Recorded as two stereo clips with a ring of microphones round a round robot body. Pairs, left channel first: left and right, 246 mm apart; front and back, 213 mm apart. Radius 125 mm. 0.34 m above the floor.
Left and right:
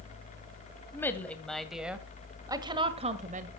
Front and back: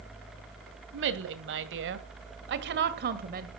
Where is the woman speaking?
170° left, 2 m; by 3.5 s 140° right, 1.7 m.